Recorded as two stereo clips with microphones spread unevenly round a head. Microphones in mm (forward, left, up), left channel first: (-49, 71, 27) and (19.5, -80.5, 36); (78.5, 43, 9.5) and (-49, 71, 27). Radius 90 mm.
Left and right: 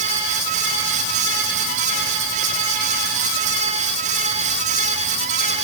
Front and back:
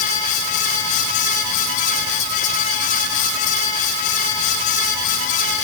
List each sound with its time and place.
Only background noise.